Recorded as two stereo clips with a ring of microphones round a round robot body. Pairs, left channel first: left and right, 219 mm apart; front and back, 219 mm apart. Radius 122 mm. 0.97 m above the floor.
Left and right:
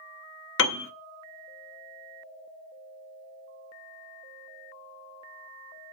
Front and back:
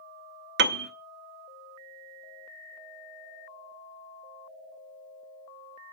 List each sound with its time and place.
0.6 s a piano: 130° left, 0.6 m